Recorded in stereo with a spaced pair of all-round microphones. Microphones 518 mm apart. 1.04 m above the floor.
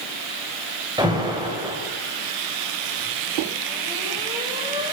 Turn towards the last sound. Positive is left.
turn(degrees=-10)  # may be behind; listen again after turning